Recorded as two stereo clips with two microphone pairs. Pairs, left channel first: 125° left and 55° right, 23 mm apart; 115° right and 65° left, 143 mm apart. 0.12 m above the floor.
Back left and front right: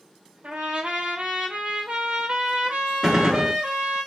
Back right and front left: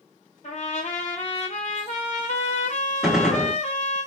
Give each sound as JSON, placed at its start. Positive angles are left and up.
{"t": 0.4, "sound": "a trumpet", "azimuth_deg": -85, "distance_m": 0.7}
{"t": 3.0, "sound": "a gunshot", "azimuth_deg": -20, "distance_m": 0.7}